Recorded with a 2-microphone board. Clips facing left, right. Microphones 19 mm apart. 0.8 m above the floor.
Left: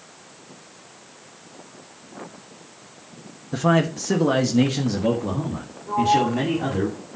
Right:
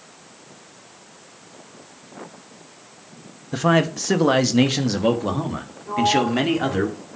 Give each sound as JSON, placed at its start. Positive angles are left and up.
{"t": 3.5, "sound": "a man speaking", "side_deg": -15, "distance_m": 1.0}
{"t": 5.9, "sound": "a sliding door", "side_deg": -35, "distance_m": 2.5}